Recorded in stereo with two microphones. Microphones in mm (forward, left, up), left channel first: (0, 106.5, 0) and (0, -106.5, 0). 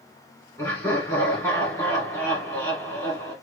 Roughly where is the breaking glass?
I don't hear breaking glass.